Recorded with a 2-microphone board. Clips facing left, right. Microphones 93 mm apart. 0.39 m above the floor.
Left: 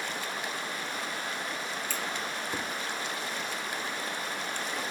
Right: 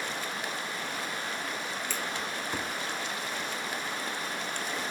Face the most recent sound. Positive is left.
turn(degrees=50)  # may be behind; listen again after turning